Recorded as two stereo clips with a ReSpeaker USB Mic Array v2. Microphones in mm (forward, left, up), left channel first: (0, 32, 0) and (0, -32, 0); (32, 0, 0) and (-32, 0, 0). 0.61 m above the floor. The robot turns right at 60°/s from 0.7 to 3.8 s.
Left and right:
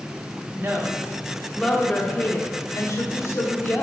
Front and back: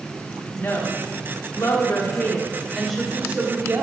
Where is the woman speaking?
45° right, 1.1 m; by 3.8 s 145° left, 1.1 m.